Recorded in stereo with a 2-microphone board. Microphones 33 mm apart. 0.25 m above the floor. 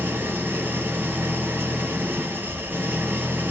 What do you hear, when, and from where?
0.0 s an engine running: 80° right, 3 m